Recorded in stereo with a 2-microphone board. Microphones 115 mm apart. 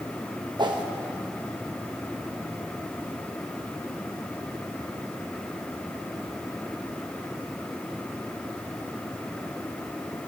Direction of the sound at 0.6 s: 40° right (ahead or behind).